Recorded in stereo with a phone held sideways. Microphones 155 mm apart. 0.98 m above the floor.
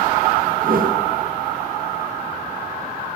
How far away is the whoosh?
About 1.3 m.